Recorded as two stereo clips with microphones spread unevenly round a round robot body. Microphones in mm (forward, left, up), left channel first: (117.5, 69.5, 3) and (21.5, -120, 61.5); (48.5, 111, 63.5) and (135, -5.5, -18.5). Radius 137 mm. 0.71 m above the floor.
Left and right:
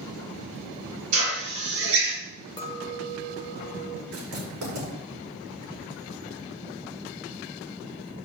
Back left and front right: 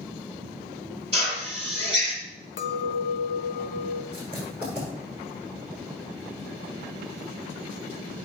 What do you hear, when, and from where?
1.1 s a drill: 160° right, 6 m
2.6 s a clink: 125° left, 1.0 m
4.1 s writing: 150° right, 7.5 m